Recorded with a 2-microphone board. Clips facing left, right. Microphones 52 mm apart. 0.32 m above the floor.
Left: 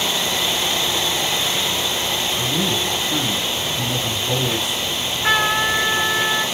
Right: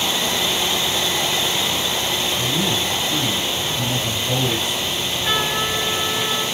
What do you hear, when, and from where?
2.4 s a man speaking: 15° left (ahead or behind), 2.5 m
4.9 s a trumpet: 50° left (ahead or behind), 2.5 m